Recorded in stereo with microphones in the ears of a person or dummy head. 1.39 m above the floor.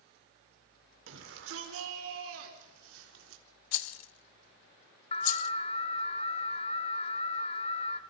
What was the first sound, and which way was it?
A shout, 80° right.